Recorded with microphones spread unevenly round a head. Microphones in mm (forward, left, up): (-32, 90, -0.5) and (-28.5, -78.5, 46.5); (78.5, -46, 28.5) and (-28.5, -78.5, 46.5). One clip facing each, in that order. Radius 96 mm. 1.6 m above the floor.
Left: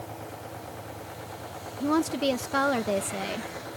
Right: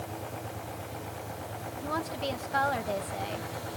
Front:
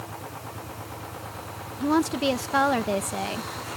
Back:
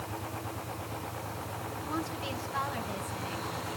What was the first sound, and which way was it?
A woman speaking, 45° left.